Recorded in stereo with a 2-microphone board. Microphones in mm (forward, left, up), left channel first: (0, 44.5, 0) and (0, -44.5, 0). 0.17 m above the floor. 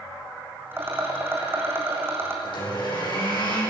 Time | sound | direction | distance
0.7 | a rattle | 25° right (ahead or behind) | 4 m
2.4 | a blender | 60° left (ahead or behind) | 9 m